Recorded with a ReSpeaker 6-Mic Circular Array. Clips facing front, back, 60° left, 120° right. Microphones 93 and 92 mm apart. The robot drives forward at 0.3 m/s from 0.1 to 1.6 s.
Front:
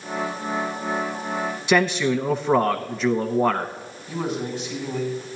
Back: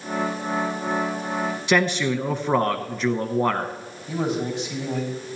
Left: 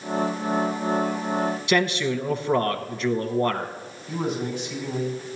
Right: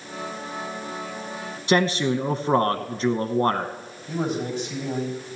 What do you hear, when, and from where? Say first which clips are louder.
1.7 s a man speaking: front 2 dB, right 5 dB; 95° right, 0.7 m
4.1 s a man speaking: back 2 dB, right 1 dB; 165° right, 5.5 m